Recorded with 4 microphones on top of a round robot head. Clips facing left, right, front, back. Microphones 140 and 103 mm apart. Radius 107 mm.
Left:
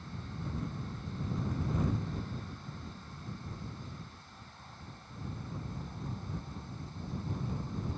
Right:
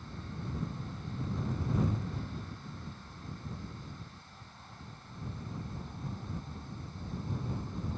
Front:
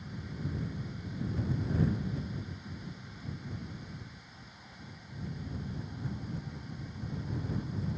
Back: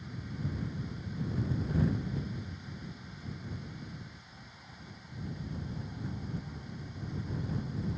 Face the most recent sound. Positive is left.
No sound to turn to.